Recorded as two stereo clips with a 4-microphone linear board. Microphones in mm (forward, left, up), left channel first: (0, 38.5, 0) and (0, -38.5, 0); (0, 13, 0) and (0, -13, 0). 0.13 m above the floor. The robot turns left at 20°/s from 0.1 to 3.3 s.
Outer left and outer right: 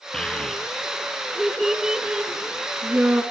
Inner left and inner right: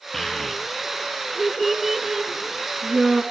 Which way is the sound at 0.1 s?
10° left (ahead or behind).